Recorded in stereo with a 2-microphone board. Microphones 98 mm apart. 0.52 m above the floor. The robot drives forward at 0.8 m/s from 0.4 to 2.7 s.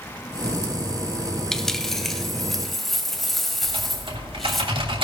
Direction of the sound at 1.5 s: 5° left (ahead or behind).